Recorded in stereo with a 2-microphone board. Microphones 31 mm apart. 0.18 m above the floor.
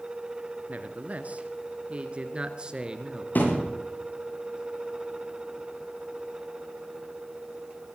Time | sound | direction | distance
0.7 | a man speaking | 50° right (ahead or behind) | 2.5 m
3.4 | a thud | 70° left (ahead or behind) | 9 m